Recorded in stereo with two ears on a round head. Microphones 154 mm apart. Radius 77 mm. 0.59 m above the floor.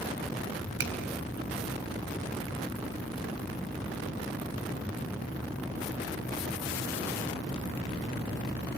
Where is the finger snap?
75° right (ahead or behind), 3.5 m.